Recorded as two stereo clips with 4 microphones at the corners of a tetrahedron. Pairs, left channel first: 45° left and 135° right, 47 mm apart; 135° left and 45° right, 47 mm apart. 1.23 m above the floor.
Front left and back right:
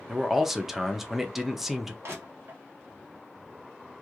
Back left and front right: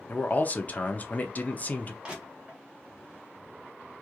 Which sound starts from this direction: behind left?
A man speaking, at 0.1 s.